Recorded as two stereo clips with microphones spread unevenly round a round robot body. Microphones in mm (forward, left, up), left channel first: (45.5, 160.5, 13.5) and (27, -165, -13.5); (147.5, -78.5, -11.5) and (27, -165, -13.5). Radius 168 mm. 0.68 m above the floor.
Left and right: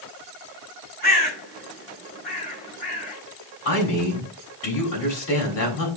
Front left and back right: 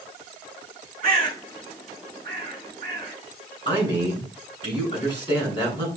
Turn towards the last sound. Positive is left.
turn(degrees=140)